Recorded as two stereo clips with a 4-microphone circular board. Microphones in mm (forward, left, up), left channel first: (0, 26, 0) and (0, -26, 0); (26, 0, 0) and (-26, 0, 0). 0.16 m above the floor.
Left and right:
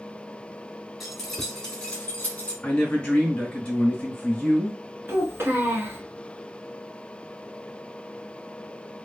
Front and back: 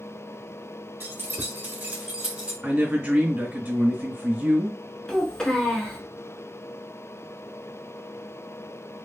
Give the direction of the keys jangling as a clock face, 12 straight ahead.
6 o'clock.